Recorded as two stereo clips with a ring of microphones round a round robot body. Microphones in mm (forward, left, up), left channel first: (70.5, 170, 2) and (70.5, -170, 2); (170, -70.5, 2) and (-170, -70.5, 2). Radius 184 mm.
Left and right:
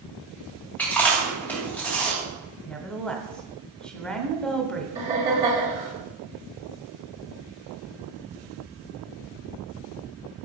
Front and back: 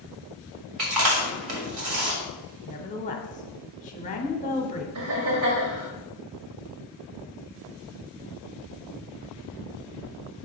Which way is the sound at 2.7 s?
5° left.